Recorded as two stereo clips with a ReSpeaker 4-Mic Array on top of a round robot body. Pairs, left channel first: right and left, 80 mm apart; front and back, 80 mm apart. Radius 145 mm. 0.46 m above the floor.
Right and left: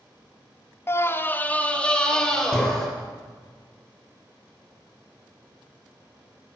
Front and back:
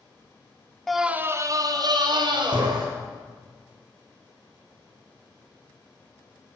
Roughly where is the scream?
Right.